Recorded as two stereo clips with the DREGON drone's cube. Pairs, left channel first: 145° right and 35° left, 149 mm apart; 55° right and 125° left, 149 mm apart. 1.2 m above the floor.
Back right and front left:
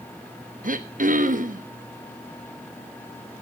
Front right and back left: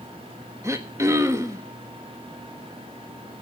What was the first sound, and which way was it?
Throat clearing, 55° left.